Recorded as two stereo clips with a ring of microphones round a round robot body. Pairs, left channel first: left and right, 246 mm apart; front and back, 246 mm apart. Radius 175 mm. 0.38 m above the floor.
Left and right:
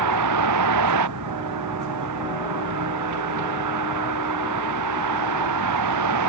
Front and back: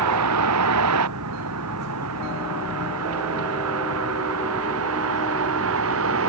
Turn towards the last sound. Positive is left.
turn(degrees=-125)